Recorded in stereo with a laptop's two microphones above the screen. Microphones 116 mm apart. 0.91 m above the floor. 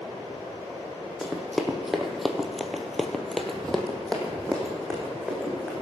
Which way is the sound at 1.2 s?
Centre (ahead or behind).